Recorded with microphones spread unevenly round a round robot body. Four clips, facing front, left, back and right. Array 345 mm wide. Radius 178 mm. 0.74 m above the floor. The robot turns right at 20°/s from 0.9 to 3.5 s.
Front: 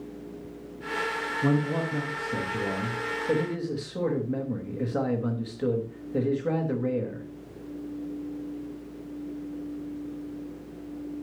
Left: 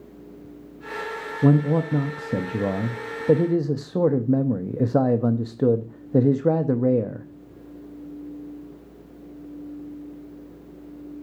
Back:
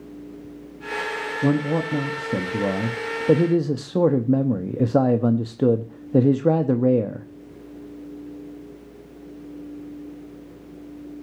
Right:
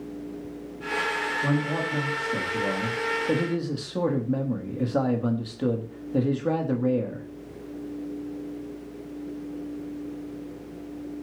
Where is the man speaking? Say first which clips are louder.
Left 10 dB, back 5 dB; 120° left, 0.9 m; by 7.3 s 160° left, 0.9 m.